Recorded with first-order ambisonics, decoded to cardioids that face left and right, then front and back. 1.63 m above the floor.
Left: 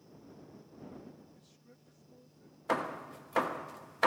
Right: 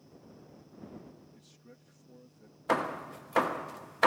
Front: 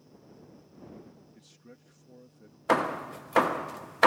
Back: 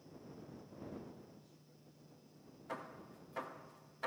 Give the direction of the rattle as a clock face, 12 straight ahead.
I don't hear a rattle.